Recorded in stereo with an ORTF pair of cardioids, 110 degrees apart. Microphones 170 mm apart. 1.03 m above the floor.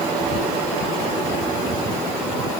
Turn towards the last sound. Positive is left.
No sound to turn to.